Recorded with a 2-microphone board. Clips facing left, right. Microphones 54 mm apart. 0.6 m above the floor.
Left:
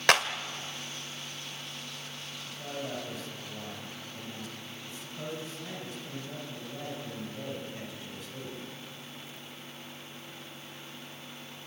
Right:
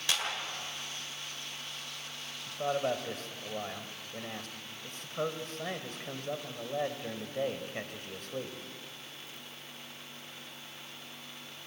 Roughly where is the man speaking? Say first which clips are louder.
Right 8 dB; right.